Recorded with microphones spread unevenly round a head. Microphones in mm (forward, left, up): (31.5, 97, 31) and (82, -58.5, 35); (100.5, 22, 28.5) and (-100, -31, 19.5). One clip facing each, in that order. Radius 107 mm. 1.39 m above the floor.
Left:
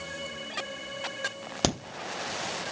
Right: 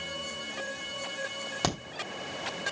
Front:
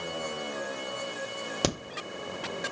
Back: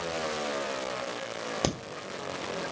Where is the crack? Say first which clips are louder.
Left 3 dB, front 1 dB; 80° left, 1.0 m.